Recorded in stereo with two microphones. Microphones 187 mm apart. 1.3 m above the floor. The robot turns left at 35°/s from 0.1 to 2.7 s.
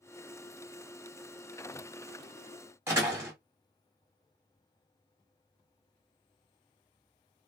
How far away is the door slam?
About 1.2 m.